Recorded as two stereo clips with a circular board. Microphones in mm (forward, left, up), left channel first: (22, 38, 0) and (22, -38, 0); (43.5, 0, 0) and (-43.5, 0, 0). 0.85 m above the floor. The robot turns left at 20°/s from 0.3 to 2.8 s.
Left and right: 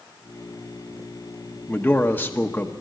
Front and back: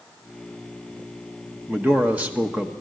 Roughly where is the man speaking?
Behind left.